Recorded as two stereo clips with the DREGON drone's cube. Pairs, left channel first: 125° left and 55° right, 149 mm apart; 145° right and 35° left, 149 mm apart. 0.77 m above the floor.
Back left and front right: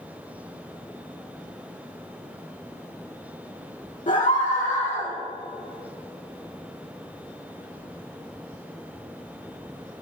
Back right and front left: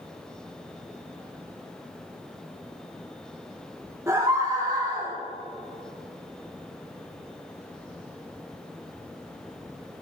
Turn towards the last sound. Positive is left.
turn(degrees=70)